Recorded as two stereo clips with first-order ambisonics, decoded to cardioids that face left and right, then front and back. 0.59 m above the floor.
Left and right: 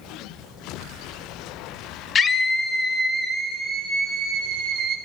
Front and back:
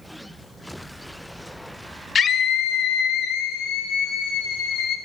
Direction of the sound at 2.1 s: 50° left.